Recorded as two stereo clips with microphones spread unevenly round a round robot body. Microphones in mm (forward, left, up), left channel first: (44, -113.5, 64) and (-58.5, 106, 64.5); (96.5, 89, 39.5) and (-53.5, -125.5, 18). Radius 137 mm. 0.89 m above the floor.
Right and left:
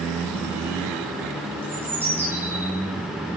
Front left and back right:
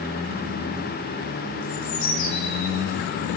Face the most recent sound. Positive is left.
turn(degrees=35)